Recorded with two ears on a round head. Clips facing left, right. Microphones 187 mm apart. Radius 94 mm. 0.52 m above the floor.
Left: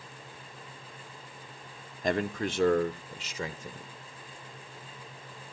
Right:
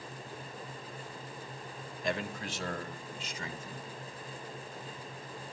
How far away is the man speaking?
About 0.8 m.